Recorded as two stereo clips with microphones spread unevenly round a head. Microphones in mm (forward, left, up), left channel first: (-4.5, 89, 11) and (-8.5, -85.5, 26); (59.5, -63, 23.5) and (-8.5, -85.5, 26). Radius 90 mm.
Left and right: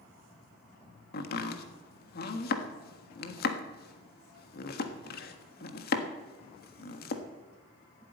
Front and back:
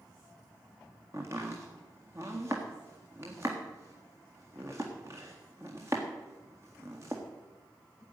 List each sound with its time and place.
1.1 s chopping: 125° left, 1.4 m